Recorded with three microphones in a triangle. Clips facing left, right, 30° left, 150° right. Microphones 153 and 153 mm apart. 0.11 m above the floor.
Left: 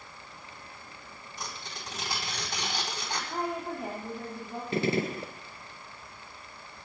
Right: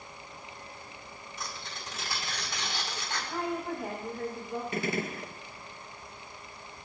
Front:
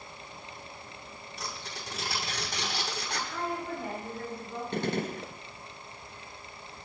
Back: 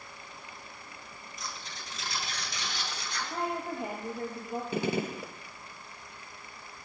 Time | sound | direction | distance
1.4 | tearing paper | 40° left | 5.5 m
3.3 | a woman speaking | 160° left | 5 m
4.7 | a gunshot | 130° left | 0.8 m